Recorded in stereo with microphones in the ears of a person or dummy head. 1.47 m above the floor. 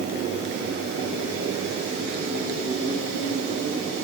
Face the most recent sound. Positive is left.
No sound to turn to.